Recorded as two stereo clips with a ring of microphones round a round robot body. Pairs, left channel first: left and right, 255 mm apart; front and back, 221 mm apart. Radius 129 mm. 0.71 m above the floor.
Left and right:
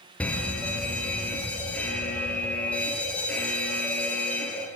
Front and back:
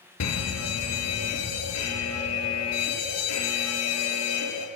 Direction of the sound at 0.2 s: 5° left.